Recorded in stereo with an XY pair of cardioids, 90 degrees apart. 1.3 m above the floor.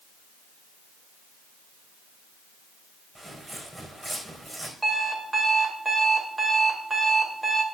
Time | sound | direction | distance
3.1 | footsteps | 15° right | 5 m
4.8 | an alarm clock | 20° right | 2.5 m